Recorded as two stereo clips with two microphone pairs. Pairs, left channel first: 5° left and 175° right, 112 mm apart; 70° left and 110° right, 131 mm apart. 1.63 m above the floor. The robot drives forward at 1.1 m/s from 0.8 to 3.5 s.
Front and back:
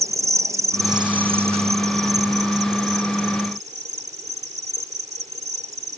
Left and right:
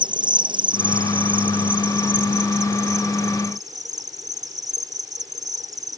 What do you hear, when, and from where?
0.0 s an insect: 125° right; by 6.0 s 175° right